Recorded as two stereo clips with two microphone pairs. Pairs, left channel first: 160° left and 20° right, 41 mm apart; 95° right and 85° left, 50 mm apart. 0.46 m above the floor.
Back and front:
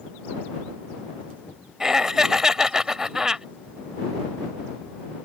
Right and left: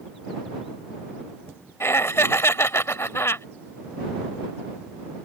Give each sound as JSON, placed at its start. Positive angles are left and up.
{"t": 1.8, "sound": "laughter", "azimuth_deg": -90}